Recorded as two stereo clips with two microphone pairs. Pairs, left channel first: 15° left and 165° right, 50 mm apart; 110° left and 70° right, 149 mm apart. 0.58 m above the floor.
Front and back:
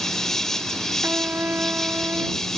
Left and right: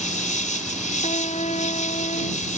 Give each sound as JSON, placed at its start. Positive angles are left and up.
{"t": 0.0, "sound": "an insect", "azimuth_deg": 95}
{"t": 1.0, "sound": "a trumpet", "azimuth_deg": 145}